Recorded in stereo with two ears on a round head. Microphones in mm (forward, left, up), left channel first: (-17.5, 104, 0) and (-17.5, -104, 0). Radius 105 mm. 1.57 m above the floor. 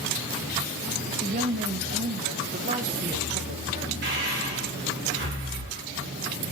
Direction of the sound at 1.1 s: 40° right (ahead or behind).